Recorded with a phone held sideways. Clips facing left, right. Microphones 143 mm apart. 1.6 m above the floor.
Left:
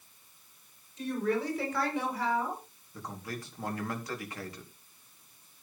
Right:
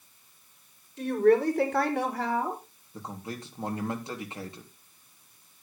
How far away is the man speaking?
About 4 m.